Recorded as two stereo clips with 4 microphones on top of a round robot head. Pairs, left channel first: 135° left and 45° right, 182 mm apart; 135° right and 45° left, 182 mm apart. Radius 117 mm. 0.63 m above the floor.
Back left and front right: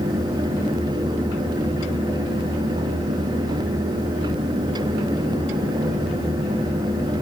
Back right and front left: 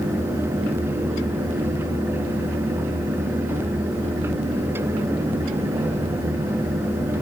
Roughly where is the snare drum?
No snare drum in this recording.